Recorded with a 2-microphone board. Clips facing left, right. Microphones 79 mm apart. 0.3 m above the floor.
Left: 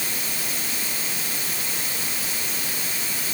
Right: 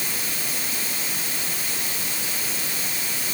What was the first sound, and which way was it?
Only background noise.